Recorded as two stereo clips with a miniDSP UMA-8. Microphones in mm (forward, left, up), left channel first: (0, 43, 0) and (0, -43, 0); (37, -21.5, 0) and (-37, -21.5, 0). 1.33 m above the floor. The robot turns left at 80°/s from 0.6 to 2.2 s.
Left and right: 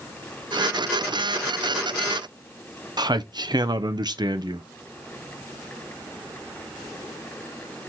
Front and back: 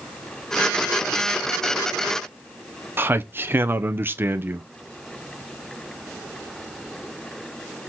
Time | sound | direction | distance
3.0 | a man speaking | 120° right | 0.5 m